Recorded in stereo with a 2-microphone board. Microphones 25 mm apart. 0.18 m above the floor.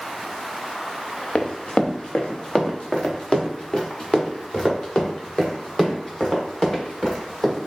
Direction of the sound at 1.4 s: 50° left (ahead or behind).